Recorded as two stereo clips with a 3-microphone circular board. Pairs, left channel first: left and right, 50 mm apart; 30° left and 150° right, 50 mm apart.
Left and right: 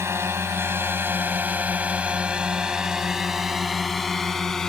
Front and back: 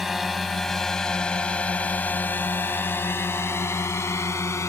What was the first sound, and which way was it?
A drone, 65° right.